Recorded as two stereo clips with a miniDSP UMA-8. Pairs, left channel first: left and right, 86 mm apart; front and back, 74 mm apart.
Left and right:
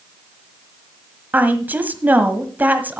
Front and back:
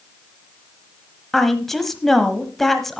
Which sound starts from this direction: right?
A woman speaking, at 1.3 s.